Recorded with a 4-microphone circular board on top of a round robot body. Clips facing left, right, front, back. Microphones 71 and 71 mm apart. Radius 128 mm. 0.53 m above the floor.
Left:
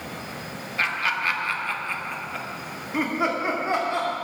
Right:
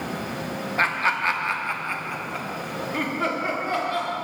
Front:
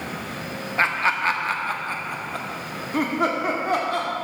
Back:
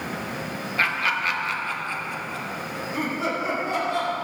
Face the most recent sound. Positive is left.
turn(degrees=25)